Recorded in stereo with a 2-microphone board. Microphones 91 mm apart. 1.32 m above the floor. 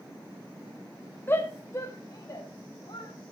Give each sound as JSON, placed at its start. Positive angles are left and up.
{"t": 1.3, "sound": "a shout", "side_deg": 25, "distance_m": 1.2}